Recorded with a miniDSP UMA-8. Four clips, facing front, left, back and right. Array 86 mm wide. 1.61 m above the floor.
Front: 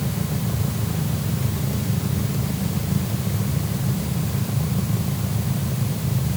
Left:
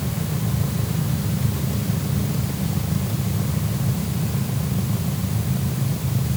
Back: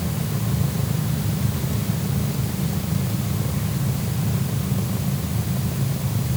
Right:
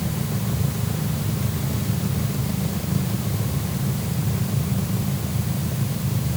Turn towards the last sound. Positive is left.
No sound to turn to.